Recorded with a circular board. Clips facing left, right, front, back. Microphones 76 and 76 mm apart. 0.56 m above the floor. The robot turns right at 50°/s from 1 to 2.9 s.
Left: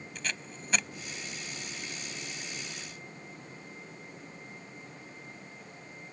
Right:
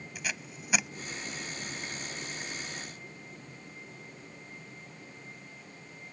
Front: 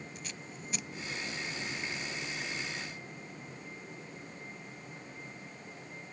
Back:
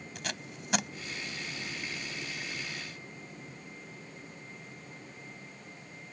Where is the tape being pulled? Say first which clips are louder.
Even, back 5 dB; 170° right.